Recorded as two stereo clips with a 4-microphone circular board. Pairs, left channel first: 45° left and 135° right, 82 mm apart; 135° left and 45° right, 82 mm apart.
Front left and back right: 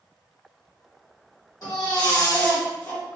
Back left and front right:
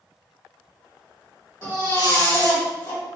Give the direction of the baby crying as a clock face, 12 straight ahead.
9 o'clock.